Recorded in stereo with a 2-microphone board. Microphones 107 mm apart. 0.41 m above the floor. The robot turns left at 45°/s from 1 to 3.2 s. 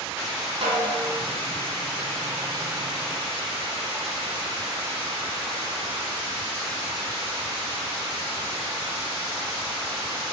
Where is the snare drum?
80° right, 1.0 m; by 1.0 s 85° right, 1.0 m.